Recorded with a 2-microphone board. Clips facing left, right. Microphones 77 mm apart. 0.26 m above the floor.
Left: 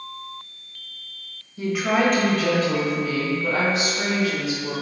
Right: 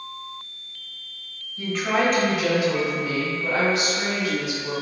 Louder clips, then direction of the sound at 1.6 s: Left 2 dB; 15° left (ahead or behind).